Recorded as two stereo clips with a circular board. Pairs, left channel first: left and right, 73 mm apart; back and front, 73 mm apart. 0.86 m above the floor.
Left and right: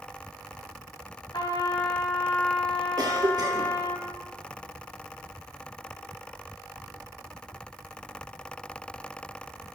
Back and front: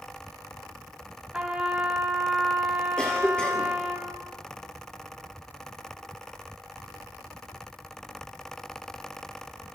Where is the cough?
105° right, 2.5 m.